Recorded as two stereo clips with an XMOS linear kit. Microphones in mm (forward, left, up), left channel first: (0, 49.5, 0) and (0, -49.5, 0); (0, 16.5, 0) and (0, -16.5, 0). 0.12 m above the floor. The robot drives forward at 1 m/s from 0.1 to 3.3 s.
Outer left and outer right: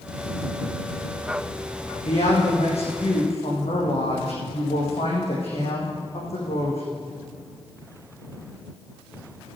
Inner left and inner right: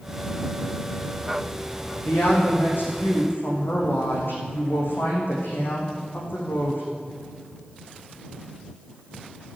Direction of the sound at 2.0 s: 80° left.